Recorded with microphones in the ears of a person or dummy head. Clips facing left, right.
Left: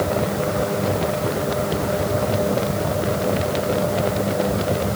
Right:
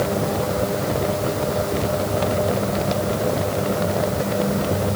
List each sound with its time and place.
Only background noise.